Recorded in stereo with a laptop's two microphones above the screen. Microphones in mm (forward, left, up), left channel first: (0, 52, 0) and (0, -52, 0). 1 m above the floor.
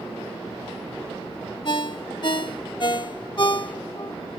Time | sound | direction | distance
1.6 | a ringtone | 50° left (ahead or behind) | ?